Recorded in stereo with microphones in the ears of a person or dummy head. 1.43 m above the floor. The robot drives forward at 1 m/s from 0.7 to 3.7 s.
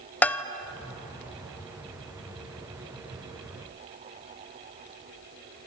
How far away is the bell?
About 0.9 m.